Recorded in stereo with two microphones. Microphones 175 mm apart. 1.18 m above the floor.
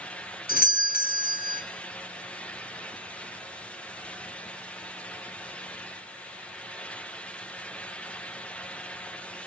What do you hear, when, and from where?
0.5 s a doorbell: 60° left (ahead or behind), 0.7 m